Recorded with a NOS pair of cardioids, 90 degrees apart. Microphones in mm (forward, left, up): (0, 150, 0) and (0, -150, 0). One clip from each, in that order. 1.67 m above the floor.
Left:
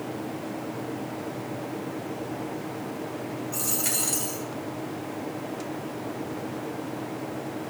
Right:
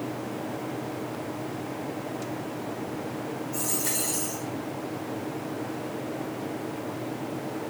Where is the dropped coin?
60° left, 4.5 m.